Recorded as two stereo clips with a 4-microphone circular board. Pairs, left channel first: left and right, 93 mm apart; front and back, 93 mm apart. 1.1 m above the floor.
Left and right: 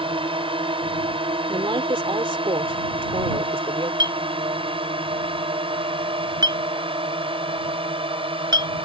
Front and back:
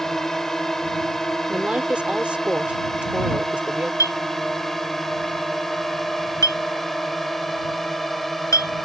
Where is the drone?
85° right.